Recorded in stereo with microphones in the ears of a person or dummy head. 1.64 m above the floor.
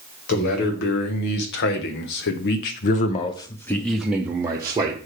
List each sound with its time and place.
0.3 s a man speaking: 55° left (ahead or behind), 1.7 m; by 5.0 s 20° right (ahead or behind), 1.0 m